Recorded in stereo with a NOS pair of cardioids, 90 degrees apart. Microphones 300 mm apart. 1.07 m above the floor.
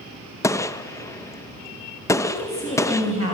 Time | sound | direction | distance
0.4 | a gunshot | 10° left | 0.6 m
2.2 | a woman speaking | 45° left | 5.5 m